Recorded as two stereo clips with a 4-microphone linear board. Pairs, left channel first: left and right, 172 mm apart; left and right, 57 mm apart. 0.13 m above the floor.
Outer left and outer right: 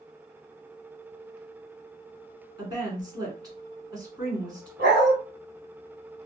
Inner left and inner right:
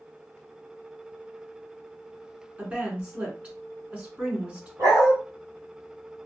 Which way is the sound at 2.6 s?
25° right (ahead or behind).